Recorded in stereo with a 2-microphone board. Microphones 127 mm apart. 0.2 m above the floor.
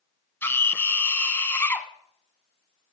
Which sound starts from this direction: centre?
A scream, at 0.4 s.